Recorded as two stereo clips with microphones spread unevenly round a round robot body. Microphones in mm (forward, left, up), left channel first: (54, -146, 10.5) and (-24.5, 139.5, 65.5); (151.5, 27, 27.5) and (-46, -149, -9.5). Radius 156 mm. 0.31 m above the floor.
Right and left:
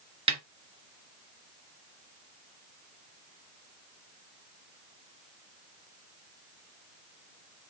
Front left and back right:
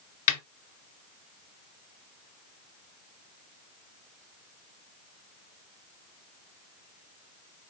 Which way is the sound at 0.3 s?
30° left.